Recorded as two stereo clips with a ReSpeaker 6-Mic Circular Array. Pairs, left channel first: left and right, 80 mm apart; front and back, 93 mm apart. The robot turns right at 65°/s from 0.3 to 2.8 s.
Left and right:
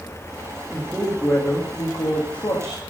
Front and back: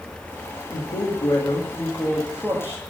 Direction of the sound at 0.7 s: 10° right.